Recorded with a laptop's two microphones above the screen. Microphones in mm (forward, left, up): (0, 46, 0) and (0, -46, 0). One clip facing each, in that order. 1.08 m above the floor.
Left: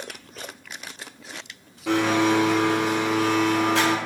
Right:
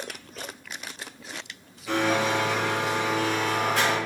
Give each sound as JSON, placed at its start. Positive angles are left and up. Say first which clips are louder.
{"t": 1.9, "sound": "a blender", "louder": "left 4 dB", "side_deg": 70, "distance_m": 0.8}